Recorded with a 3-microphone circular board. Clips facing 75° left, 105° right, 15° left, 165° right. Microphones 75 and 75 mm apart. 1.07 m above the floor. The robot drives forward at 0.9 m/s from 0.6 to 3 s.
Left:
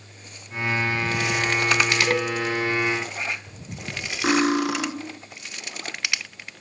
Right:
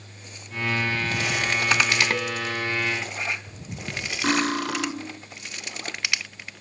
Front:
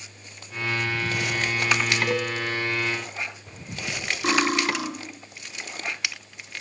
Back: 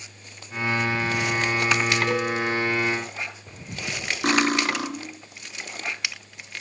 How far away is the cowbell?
About 1.0 m.